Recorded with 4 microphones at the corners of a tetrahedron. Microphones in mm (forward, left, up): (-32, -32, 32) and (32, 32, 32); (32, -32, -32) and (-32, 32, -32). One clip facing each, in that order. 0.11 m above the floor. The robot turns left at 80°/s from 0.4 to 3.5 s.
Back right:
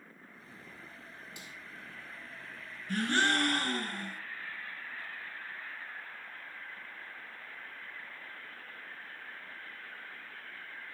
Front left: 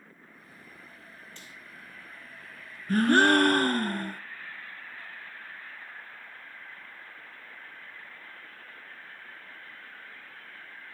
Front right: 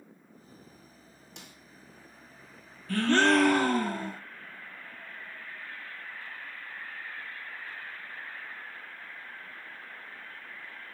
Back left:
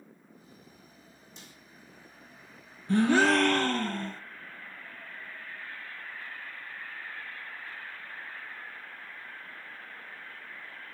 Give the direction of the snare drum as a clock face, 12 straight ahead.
2 o'clock.